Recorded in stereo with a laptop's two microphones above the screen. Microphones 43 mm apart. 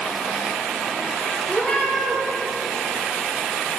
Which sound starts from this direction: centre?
A cat meowing, at 1.5 s.